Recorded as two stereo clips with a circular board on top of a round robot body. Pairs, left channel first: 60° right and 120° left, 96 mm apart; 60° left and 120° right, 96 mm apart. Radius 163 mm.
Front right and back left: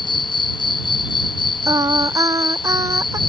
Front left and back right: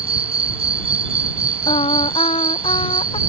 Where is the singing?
65° left.